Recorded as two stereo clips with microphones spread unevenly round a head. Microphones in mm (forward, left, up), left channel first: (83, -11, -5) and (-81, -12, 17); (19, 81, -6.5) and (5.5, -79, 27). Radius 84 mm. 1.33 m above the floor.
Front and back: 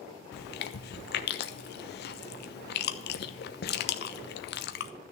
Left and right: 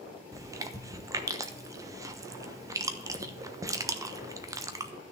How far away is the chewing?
About 1.0 m.